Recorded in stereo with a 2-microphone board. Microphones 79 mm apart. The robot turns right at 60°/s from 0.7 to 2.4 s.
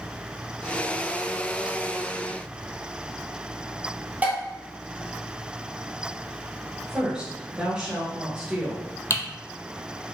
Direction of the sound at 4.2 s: 20° right (ahead or behind).